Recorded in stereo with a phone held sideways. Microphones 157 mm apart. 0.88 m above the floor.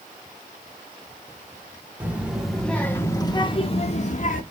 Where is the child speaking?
10° right (ahead or behind), 1.6 m; by 4.4 s 60° left (ahead or behind), 1.5 m.